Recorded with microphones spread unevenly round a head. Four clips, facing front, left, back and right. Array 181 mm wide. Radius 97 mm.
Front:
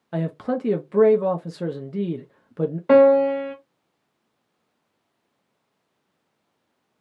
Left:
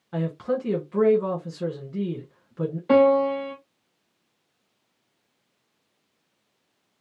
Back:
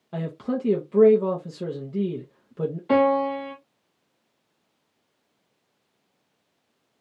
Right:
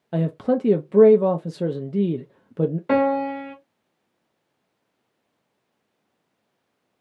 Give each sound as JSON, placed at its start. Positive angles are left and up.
{"t": 0.1, "sound": "a man speaking", "azimuth_deg": -95, "distance_m": 0.8}
{"t": 2.9, "sound": "a piano", "azimuth_deg": -5, "distance_m": 2.0}